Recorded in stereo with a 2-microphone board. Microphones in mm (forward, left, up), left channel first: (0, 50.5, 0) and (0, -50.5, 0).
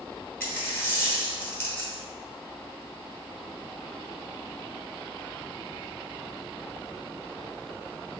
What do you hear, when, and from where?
0.4 s a dropped coin: 20° left (ahead or behind), 1.0 m